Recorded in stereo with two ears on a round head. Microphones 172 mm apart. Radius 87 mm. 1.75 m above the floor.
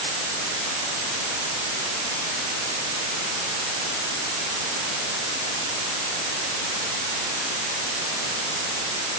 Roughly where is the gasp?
No gasp in this recording.